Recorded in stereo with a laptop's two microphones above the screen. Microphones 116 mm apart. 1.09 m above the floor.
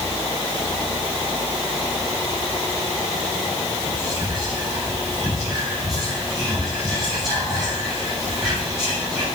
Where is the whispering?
Centre (ahead or behind), 6.5 m.